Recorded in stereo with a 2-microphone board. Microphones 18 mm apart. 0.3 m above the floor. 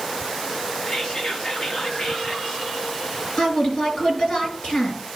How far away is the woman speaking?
About 6 m.